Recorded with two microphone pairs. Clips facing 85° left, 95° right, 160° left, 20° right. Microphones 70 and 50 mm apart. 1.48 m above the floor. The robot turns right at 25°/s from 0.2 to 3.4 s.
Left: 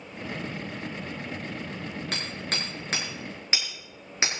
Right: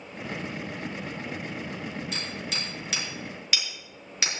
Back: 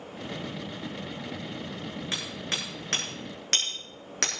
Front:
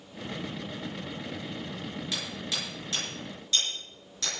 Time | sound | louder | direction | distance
2.1 | hammering | left 1 dB, back 2 dB | 110° left | 7 m